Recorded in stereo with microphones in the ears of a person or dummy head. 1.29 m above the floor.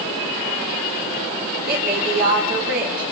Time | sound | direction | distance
1.7 | a woman speaking | 45° right (ahead or behind) | 5 m